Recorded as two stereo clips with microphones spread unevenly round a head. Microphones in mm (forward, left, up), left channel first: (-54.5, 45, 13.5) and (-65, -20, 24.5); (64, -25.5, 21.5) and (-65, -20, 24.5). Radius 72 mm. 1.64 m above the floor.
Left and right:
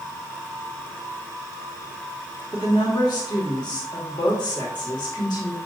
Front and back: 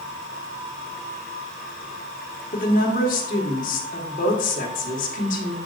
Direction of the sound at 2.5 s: 35° left.